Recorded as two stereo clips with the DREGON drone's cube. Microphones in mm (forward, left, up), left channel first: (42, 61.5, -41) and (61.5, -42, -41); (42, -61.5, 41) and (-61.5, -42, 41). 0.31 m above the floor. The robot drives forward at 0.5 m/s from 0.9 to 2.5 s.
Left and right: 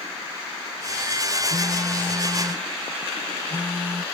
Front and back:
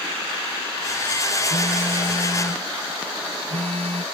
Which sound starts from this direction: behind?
A phone buzzing, at 1.5 s.